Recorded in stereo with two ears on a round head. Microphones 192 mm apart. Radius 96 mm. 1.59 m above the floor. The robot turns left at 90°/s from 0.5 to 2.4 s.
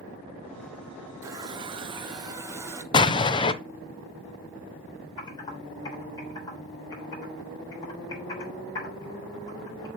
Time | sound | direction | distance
1.2 | a running tap | 15° right (ahead or behind) | 0.7 m
2.9 | an explosion | 25° left (ahead or behind) | 0.6 m
5.2 | typing on a keyboard | 20° left (ahead or behind) | 3.5 m